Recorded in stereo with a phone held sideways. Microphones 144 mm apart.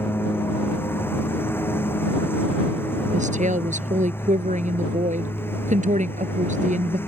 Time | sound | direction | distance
0.0 | a lawn mower | 15° left (ahead or behind) | ?
3.1 | a woman speaking | 60° right (ahead or behind) | ?